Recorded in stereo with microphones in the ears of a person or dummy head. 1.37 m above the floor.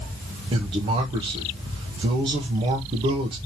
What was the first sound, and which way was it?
A man speaking, 25° right (ahead or behind).